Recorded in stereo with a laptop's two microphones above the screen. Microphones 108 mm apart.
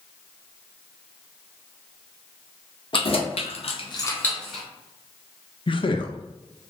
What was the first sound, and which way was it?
Keys jangling, 55° left (ahead or behind).